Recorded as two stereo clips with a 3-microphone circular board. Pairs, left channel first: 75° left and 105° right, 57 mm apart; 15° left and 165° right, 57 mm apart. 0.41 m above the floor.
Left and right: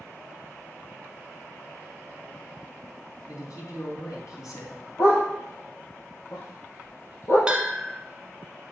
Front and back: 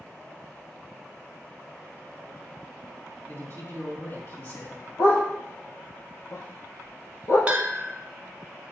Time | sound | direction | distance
3.3 | a man speaking | 65° left | 3.5 m
5.0 | a dog barking | 35° left | 5 m
7.5 | a bell | 155° right | 1.1 m